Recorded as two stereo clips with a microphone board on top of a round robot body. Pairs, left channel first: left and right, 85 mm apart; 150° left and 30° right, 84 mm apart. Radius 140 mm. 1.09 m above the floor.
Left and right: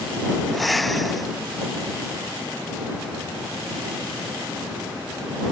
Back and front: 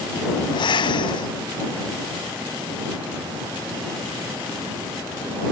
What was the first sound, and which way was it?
Breathing, straight behind.